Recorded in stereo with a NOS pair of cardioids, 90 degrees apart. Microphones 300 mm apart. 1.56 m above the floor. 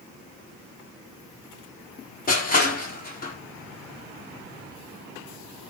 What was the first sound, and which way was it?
Crushing, 30° left.